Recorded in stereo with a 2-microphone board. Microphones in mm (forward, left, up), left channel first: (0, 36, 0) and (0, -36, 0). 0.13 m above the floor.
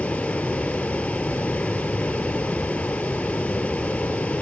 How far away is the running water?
About 0.9 m.